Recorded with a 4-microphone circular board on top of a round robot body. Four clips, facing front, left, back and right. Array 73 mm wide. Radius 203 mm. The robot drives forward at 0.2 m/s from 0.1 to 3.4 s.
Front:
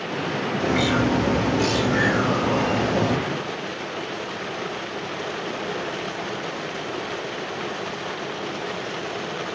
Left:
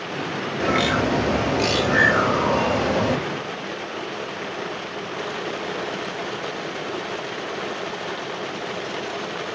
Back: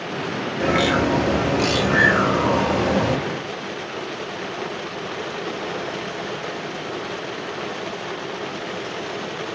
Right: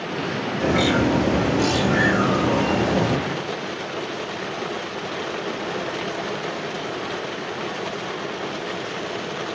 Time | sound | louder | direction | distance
0.6 | a bird | right 1 dB, back 3 dB | 145° left | 3 m